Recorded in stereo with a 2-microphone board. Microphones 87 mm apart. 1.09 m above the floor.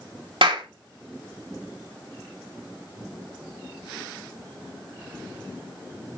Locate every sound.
0.4 s a clap: 80° right, 2.5 m